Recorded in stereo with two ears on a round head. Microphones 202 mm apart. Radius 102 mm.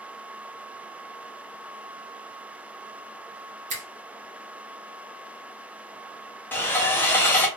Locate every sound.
3.7 s a finger snap: 30° right (ahead or behind), 0.9 m
6.5 s sawing: 10° left (ahead or behind), 0.7 m